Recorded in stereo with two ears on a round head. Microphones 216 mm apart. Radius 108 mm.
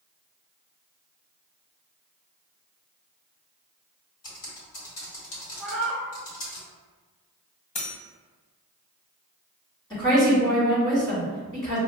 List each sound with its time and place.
4.2 s typing on a keyboard: 55° left (ahead or behind), 1.3 m
5.6 s a cat meowing: 5° right (ahead or behind), 0.7 m
7.8 s cutlery clinking: 30° left (ahead or behind), 1.1 m
9.9 s a woman speaking: 20° left (ahead or behind), 2.0 m